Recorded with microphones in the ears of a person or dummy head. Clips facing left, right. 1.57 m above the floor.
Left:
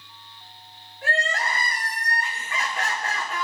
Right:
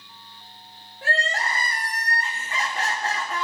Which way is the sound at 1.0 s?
40° right (ahead or behind).